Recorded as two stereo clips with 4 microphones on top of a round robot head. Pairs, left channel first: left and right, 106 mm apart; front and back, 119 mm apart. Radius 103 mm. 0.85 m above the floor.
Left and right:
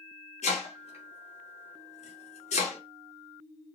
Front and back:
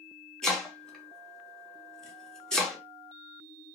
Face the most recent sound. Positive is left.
turn(degrees=85)